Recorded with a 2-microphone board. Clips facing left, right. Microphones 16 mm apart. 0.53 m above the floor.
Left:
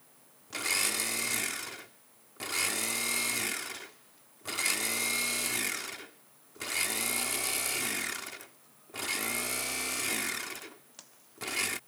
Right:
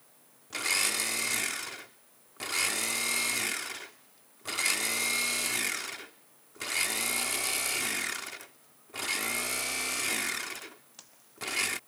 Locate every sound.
0.5 s a blender: 5° right (ahead or behind)